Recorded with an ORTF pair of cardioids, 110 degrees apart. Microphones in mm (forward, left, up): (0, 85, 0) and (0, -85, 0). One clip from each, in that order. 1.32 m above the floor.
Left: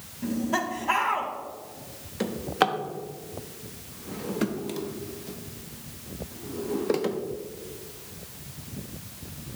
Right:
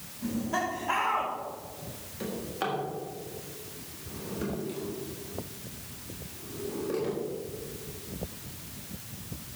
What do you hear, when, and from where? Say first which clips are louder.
0.2 s laughter: left 3 dB; 35° left, 3.5 m
2.2 s a drawer: left 9 dB; 60° left, 1.4 m